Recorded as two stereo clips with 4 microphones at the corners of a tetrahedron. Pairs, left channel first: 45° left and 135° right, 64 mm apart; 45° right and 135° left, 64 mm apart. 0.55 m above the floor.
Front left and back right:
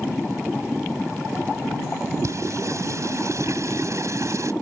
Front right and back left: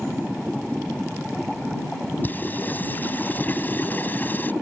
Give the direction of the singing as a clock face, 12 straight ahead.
3 o'clock.